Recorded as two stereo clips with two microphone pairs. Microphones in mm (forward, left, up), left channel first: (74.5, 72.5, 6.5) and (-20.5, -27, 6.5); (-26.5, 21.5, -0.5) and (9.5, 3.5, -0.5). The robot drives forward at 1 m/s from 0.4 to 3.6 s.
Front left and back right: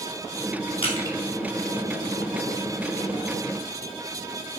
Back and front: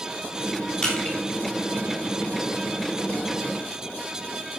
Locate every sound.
0.8 s crushing: 85° left, 3 m; by 1.2 s 90° left, 3 m